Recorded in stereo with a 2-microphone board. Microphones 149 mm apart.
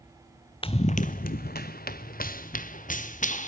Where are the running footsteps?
35° left (ahead or behind), 0.7 m; by 3.5 s 60° left (ahead or behind), 1.8 m.